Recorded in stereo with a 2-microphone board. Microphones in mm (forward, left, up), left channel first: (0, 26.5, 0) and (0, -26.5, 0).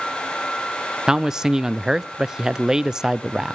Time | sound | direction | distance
1.1 | a man speaking | 10° right (ahead or behind) | 0.5 m